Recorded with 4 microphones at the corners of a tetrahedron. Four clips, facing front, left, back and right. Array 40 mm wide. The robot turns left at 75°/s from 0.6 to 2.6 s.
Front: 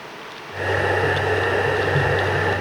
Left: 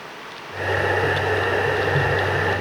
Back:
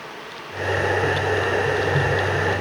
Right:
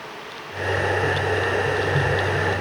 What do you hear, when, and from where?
Only background noise.